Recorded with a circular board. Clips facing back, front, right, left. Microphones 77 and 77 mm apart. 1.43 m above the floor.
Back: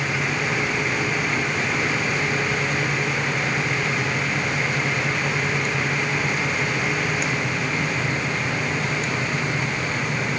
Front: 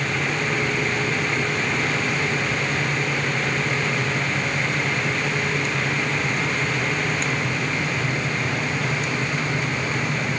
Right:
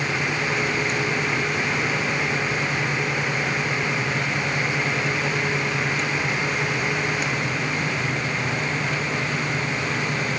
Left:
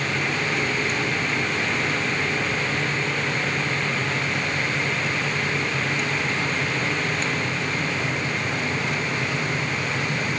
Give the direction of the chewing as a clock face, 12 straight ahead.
I don't hear chewing.